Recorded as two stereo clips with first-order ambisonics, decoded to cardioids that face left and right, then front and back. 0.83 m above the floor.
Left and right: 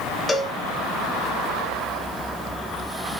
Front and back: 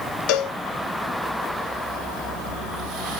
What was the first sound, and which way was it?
A cowbell, 15° left.